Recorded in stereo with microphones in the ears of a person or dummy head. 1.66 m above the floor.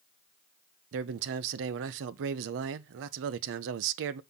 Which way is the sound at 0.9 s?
75° right (ahead or behind).